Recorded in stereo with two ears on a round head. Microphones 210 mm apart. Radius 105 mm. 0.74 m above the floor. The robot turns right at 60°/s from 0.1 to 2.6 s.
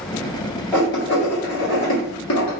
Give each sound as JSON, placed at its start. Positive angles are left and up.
{"t": 0.7, "sound": "writing", "side_deg": 5, "distance_m": 1.8}